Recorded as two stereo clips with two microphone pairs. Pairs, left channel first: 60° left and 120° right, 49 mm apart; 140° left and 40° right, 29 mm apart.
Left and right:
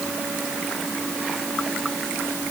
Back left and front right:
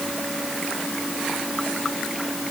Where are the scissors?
I don't hear scissors.